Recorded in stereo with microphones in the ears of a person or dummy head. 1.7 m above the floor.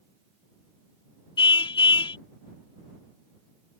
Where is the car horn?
30° left (ahead or behind).